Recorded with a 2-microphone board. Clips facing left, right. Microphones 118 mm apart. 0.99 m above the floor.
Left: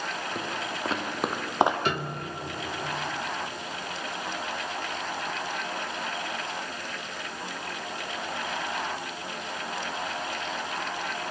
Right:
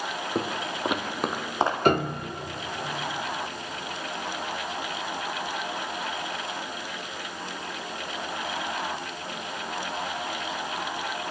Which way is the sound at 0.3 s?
35° right (ahead or behind).